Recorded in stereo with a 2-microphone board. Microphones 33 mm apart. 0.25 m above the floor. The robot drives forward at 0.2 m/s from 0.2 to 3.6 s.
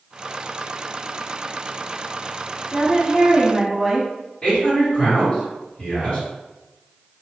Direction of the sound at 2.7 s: 20° right (ahead or behind).